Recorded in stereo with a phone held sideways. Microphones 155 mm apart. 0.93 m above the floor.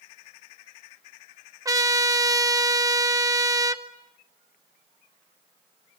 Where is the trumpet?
20° right (ahead or behind), 1.1 m.